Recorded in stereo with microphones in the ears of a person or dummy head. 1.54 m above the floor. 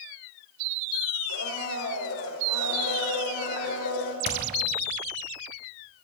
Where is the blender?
80° left, 5 m.